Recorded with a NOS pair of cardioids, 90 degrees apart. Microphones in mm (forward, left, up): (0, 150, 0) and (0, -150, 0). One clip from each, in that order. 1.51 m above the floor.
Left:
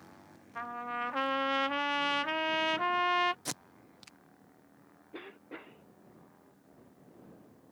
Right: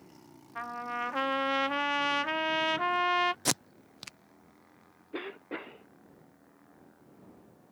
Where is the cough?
35° right.